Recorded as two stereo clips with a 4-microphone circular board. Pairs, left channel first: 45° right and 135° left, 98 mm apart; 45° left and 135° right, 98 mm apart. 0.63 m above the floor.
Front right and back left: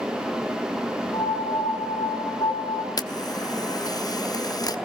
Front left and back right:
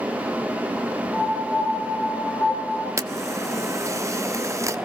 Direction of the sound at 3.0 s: 85° right.